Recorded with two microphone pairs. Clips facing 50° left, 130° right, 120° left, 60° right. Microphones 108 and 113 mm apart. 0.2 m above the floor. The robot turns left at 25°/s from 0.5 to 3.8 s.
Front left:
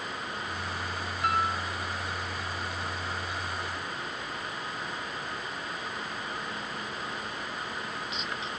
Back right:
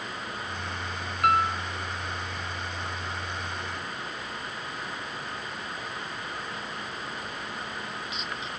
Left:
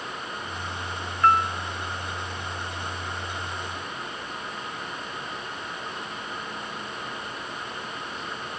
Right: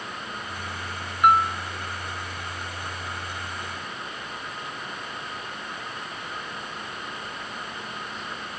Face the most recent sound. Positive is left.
turn(degrees=165)